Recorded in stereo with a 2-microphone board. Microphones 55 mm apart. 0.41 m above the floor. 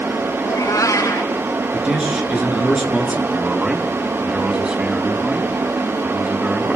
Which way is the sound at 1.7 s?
15° right (ahead or behind).